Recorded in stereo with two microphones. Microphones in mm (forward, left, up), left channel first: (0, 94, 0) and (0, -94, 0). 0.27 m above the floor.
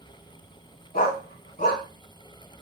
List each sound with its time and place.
0.9 s a dog barking: 40° left (ahead or behind), 1.2 m